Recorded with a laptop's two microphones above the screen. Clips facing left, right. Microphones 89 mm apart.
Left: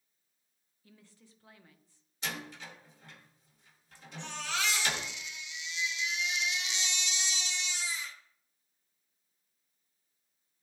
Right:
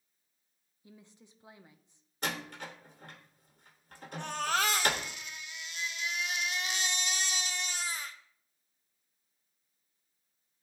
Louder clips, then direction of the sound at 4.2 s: Right 5 dB; 45° right (ahead or behind).